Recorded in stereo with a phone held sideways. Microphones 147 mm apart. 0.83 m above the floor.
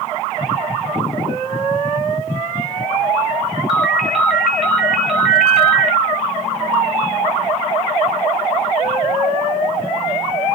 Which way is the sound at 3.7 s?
Centre (ahead or behind).